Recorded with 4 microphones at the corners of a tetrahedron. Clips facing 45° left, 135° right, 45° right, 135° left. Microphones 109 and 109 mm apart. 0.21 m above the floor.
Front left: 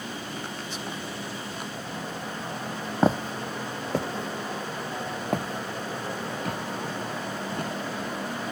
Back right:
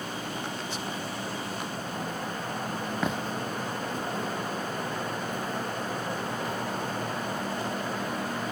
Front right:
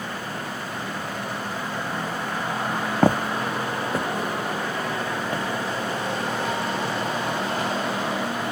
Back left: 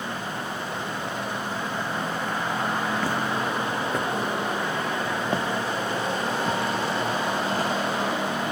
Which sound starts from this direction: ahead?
Footsteps, at 3.0 s.